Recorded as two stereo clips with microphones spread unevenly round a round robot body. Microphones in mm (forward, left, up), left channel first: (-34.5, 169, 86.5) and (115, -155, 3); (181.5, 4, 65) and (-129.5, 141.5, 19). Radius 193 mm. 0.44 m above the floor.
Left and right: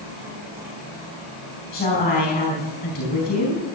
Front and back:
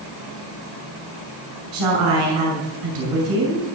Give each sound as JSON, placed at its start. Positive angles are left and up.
{"t": 1.7, "sound": "a woman speaking", "azimuth_deg": -170, "distance_m": 5.0}